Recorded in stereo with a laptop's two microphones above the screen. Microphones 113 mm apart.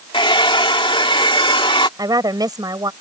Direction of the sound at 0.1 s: 50° left (ahead or behind).